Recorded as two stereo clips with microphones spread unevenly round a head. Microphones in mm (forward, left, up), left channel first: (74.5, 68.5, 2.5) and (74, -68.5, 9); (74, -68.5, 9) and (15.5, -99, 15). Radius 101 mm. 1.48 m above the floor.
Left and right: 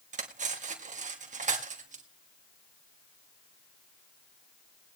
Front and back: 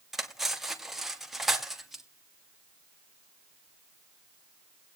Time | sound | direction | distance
0.1 | cutlery clinking | 70° right | 2 m